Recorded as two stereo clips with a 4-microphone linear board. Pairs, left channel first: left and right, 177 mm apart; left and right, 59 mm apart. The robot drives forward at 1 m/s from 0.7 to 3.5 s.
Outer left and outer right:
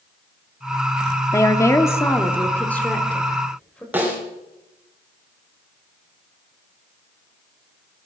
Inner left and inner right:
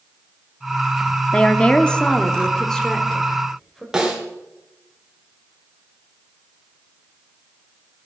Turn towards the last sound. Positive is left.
turn(degrees=-10)  # may be behind; listen again after turning